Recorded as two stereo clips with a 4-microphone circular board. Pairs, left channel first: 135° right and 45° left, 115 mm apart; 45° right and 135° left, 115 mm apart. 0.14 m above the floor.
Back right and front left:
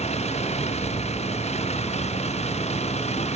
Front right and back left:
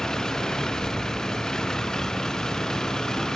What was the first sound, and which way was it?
A vehicle, 130° right.